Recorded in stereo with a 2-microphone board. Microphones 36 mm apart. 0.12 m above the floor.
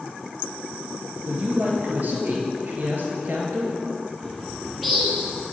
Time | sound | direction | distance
1.2 | a woman speaking | 50° right (ahead or behind) | 1.8 m
4.2 | a bird | 5° right (ahead or behind) | 2 m